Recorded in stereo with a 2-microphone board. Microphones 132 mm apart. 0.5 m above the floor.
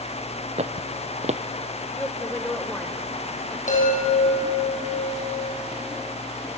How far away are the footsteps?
About 0.8 m.